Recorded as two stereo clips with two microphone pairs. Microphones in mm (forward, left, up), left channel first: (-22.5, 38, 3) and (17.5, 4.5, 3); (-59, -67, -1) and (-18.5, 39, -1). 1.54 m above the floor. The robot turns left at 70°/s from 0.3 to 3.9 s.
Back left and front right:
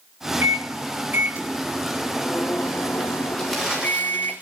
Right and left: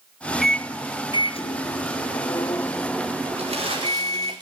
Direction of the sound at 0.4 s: 25° right.